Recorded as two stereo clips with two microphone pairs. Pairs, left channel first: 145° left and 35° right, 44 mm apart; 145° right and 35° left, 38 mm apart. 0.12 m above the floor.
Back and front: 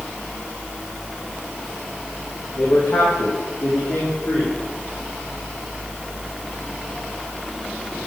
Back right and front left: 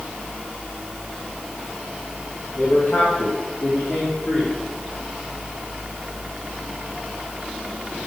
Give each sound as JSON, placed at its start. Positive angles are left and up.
{"t": 2.5, "sound": "a man speaking", "azimuth_deg": 170, "distance_m": 7.5}